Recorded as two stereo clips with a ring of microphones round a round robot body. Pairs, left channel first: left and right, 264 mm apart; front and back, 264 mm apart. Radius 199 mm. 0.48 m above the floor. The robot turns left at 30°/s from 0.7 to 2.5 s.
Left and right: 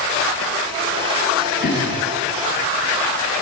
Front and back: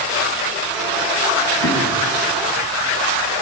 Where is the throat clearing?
35° left, 7.5 m; by 2.0 s 25° left, 7.5 m.